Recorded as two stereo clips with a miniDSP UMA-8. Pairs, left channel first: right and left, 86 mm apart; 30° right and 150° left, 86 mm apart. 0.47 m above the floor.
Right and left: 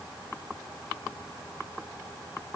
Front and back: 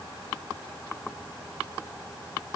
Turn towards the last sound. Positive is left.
No sound to turn to.